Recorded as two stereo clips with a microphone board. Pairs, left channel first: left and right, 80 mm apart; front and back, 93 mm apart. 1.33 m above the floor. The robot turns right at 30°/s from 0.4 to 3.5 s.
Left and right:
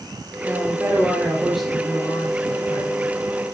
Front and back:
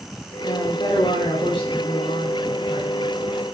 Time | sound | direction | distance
0.4 | a woman speaking | 35° right | 4 m